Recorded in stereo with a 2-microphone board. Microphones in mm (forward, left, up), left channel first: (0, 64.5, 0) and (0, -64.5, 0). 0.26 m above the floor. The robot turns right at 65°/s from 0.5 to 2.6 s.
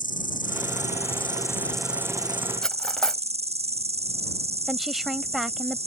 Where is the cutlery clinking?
5° left (ahead or behind).